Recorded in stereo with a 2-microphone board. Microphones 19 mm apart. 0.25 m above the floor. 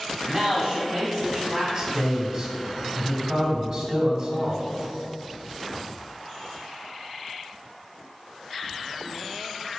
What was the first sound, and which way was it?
A man speaking, 30° right (ahead or behind).